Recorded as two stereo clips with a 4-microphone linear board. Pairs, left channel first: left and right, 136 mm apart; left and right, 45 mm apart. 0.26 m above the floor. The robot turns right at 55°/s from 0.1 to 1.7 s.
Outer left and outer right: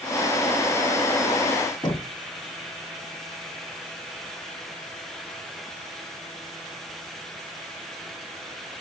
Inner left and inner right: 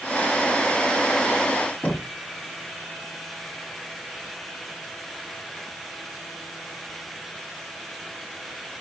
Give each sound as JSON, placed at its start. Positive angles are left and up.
{"t": 1.8, "sound": "knocking", "side_deg": 25, "distance_m": 2.0}